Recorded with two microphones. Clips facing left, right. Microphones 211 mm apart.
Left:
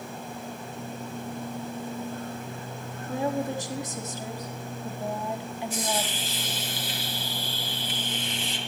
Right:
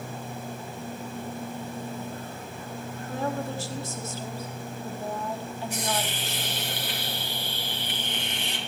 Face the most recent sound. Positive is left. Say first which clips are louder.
# left 1 dB
turn(degrees=-65)  # may be behind; listen again after turning